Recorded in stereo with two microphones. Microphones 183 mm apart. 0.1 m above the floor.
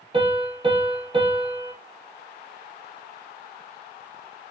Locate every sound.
0.1 s a piano: 30° right (ahead or behind), 1.1 m